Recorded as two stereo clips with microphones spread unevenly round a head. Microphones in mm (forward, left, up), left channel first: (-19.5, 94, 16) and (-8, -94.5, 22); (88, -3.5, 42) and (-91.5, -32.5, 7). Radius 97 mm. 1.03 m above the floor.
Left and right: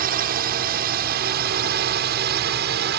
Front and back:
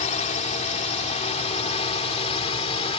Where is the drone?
45° right; by 3.0 s 50° right.